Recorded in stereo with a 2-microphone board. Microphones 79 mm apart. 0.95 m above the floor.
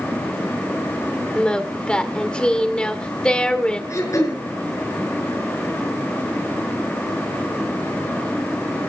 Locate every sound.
1.4 s singing: 15° left (ahead or behind), 1.7 m
3.9 s throat clearing: 40° left (ahead or behind), 5.5 m